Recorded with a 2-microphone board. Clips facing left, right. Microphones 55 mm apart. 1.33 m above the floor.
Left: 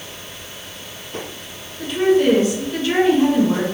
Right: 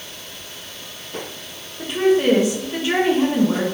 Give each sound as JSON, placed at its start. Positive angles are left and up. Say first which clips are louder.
{"t": 1.8, "sound": "a woman speaking", "louder": "left 1 dB", "side_deg": -20, "distance_m": 1.7}